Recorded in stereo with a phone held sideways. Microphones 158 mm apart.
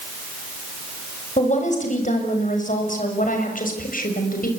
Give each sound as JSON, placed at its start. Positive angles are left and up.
{"t": 1.4, "sound": "a woman speaking", "side_deg": 50, "distance_m": 7.0}